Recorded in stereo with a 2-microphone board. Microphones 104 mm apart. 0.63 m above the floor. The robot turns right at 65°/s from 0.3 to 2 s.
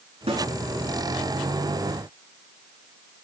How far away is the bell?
I don't hear a bell.